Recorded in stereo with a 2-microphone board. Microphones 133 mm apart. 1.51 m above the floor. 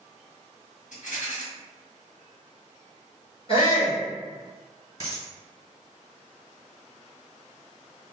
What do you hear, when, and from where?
0.9 s a rattle: 75° left (ahead or behind), 1.4 m
3.5 s a shout: 45° left (ahead or behind), 0.9 m
5.0 s a dropped coin: 30° right (ahead or behind), 1.5 m